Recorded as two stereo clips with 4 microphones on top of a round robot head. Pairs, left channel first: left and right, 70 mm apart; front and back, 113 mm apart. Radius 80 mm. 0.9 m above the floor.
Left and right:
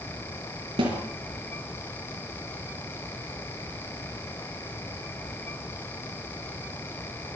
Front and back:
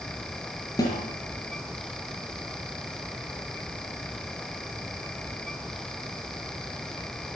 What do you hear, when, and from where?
0.8 s a snare drum: 65° right, 5.5 m